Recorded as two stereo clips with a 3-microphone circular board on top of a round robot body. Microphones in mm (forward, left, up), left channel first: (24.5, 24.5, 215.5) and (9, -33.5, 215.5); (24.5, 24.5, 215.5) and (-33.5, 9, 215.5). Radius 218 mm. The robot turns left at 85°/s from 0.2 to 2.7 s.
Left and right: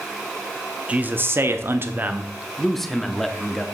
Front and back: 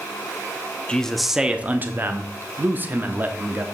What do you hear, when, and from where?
0.9 s a man speaking: 50° right, 1.0 m; by 3.7 s 160° left, 1.0 m